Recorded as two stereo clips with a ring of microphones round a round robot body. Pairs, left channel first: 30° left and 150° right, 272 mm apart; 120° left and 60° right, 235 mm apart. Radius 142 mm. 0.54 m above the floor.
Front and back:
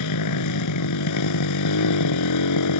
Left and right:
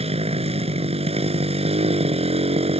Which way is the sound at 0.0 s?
5° left.